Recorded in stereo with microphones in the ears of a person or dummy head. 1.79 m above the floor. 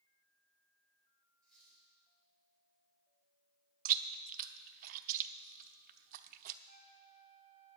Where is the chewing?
45° right (ahead or behind), 0.6 m.